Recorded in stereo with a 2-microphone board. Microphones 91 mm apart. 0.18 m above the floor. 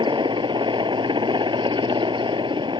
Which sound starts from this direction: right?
A helicopter, at 0.0 s.